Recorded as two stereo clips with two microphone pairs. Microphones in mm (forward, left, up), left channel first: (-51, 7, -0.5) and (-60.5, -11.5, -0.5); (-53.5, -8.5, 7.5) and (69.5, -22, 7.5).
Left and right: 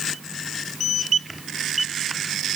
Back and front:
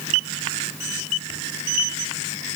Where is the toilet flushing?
I don't hear a toilet flushing.